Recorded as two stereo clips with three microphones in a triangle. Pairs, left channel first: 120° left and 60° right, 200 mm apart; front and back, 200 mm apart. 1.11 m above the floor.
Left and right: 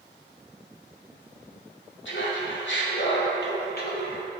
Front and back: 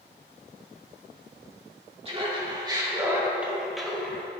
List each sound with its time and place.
2.0 s laughter: 120° left, 2.5 m; by 4.3 s 80° left, 2 m